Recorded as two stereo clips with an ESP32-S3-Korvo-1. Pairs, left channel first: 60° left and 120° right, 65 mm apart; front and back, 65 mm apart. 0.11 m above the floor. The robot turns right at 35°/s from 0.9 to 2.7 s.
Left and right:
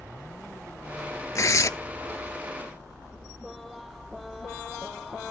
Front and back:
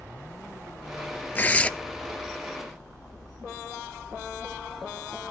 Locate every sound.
1.4 s tearing paper: 55° left, 0.6 m; by 1.7 s 65° left, 0.6 m